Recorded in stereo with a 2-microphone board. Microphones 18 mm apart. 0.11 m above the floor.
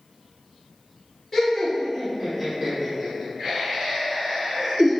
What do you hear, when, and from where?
1.3 s laughter: 10° left (ahead or behind), 1.2 m; by 4.9 s 50° right (ahead or behind), 1.9 m